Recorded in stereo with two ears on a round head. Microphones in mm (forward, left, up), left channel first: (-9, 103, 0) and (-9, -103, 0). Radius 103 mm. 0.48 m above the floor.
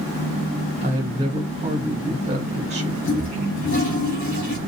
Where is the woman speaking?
30° right (ahead or behind), 0.9 m.